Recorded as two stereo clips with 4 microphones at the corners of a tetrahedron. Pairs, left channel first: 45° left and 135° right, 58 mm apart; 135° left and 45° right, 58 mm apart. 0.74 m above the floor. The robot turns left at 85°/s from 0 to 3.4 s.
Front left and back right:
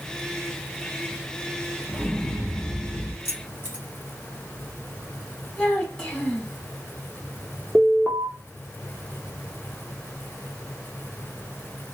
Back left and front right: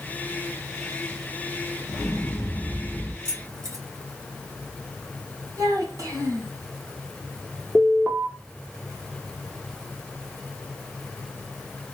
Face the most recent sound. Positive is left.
turn(degrees=55)